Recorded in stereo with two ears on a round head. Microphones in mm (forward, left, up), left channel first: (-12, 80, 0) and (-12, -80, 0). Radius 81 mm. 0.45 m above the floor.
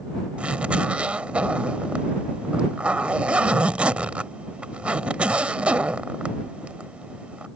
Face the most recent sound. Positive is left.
turn(degrees=-5)  # may be behind; listen again after turning